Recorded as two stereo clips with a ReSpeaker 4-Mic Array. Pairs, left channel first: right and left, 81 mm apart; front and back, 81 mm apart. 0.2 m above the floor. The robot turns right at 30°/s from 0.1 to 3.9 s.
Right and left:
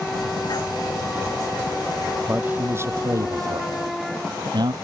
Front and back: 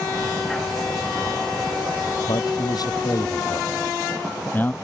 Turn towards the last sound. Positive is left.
turn(degrees=65)